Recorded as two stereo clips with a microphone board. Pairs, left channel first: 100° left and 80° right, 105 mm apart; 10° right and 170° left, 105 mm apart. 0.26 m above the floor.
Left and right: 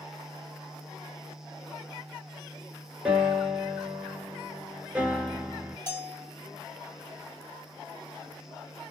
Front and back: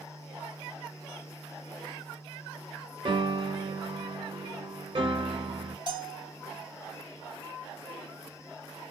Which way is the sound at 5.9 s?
155° left.